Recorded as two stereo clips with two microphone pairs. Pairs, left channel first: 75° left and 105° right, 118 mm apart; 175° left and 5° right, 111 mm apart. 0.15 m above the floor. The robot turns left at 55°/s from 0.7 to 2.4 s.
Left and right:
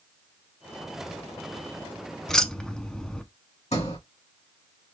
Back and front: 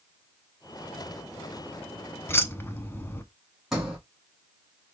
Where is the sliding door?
80° left, 3 m.